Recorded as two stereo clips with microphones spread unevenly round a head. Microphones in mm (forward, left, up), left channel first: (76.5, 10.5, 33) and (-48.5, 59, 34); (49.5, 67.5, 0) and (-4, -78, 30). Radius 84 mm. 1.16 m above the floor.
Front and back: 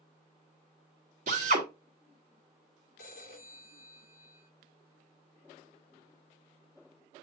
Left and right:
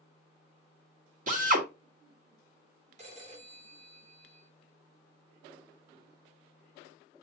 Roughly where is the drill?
Behind right.